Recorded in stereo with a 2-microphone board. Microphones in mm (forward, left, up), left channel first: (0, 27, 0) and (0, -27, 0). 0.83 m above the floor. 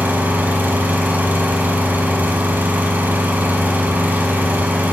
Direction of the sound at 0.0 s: 30° right (ahead or behind).